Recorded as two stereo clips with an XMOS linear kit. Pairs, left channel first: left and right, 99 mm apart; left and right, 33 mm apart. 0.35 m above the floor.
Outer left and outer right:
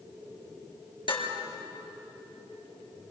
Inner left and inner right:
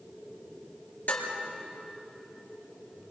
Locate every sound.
1.1 s dishes clattering: 55° left (ahead or behind), 4.5 m